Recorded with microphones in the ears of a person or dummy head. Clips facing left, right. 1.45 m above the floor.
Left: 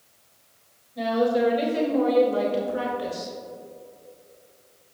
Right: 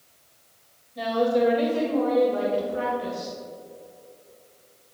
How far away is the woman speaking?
About 3 m.